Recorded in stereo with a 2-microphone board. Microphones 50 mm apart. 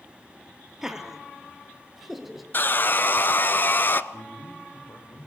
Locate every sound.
0.8 s laughter: 10° right (ahead or behind), 2.5 m; by 2.4 s centre (ahead or behind), 4.5 m
2.5 s sawing: 40° left (ahead or behind), 0.8 m
4.1 s a man speaking: 50° left (ahead or behind), 8.5 m